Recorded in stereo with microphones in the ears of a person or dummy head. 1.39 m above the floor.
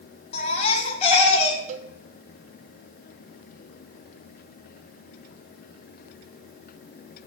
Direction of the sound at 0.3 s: 35° left (ahead or behind).